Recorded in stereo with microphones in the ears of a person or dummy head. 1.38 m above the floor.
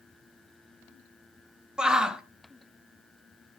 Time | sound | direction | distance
1.8 | a shout | 5° right (ahead or behind) | 0.6 m